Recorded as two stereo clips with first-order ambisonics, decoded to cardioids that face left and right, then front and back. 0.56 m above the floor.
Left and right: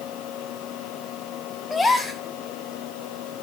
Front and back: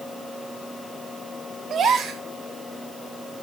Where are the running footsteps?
No running footsteps in this recording.